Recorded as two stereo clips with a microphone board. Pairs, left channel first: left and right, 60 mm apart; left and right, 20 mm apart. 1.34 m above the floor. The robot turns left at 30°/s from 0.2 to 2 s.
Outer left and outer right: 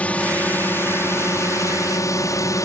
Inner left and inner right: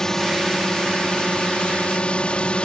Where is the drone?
155° left; by 2.6 s 100° left.